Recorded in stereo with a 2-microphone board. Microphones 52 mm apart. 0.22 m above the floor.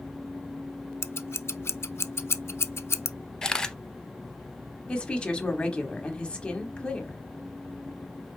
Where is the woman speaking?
20° left (ahead or behind), 1.1 m.